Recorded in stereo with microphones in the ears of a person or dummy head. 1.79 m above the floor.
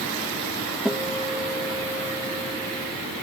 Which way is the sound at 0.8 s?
5° left (ahead or behind).